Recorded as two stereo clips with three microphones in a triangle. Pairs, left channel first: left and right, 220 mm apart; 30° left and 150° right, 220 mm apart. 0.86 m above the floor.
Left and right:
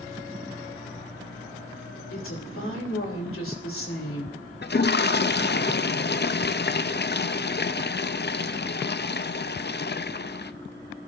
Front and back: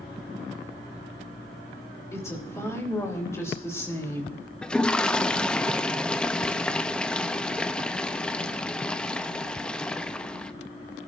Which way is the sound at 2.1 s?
105° left.